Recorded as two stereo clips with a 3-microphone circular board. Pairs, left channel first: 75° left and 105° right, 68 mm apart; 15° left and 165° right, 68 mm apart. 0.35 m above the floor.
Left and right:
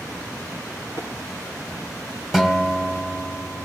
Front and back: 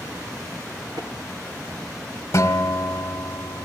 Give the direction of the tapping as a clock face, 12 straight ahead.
5 o'clock.